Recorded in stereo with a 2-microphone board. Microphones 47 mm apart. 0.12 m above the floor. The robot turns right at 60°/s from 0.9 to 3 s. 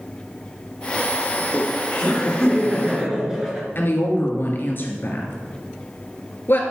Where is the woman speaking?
45° left (ahead or behind), 2 m.